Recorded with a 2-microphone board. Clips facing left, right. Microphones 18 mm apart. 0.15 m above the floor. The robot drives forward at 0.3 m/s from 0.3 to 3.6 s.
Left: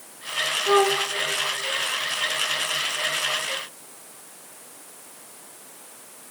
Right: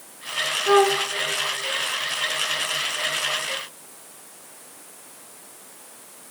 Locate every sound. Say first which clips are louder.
0.7 s a flute: right 2 dB; 60° right (ahead or behind), 1.8 m; by 1.1 s 55° right (ahead or behind), 1.8 m